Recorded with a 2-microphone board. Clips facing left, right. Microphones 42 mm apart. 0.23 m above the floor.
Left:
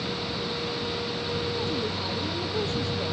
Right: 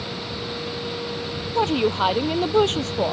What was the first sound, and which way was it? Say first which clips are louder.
A woman speaking: right 9 dB; 80° right.